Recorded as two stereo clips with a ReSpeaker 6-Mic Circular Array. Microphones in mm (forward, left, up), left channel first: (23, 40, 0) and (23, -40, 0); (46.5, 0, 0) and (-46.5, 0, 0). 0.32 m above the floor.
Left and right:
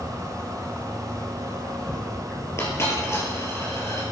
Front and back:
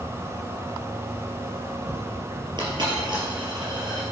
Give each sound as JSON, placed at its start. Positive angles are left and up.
{"t": 0.0, "sound": "an insect", "azimuth_deg": 170, "distance_m": 4.0}
{"t": 2.6, "sound": "a dropped coin", "azimuth_deg": 145, "distance_m": 3.5}